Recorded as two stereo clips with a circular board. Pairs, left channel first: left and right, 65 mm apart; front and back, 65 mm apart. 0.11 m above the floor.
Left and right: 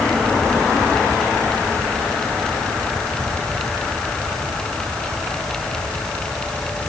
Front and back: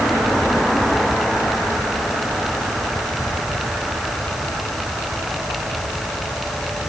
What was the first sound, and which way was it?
Only background noise.